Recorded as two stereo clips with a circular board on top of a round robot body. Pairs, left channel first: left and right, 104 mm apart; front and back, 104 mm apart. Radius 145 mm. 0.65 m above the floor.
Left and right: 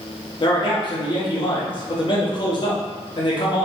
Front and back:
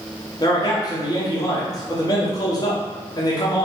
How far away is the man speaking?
About 1.3 m.